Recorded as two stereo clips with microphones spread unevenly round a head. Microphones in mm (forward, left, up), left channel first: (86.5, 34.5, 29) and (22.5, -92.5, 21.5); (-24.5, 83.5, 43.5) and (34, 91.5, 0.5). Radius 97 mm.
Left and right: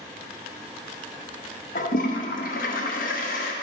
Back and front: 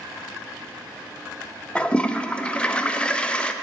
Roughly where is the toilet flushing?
Left.